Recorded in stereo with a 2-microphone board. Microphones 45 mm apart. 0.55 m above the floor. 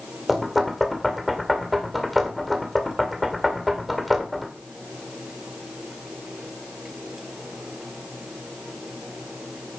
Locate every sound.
0.3 s knocking: centre (ahead or behind), 1.9 m